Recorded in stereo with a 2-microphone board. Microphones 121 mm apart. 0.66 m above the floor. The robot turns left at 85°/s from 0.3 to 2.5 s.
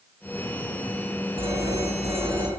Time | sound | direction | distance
1.4 | a phone ringing | 50° right | 3.5 m